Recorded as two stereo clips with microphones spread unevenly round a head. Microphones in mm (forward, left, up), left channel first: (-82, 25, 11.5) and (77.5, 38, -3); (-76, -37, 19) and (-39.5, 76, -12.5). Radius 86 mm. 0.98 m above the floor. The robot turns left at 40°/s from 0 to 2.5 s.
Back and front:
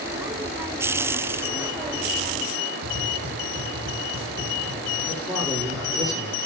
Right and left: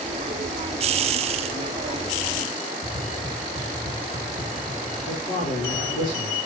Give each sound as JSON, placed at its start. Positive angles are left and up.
{"t": 2.8, "sound": "tapping", "azimuth_deg": -15, "distance_m": 2.0}
{"t": 5.1, "sound": "a man speaking", "azimuth_deg": -80, "distance_m": 3.5}